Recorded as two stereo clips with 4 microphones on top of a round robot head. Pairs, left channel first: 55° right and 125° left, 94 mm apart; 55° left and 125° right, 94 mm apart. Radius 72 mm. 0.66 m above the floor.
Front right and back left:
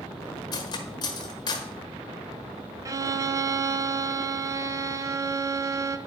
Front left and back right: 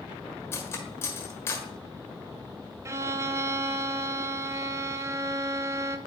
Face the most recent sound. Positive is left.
turn(degrees=175)